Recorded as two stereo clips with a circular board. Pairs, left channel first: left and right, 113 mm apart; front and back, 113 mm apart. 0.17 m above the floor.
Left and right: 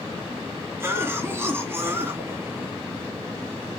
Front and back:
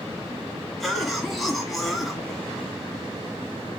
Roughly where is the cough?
Right.